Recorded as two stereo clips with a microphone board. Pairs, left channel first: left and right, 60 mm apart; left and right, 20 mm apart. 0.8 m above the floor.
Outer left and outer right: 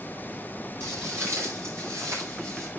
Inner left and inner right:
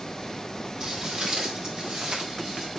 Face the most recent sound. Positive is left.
turn(degrees=-60)  # may be behind; listen again after turning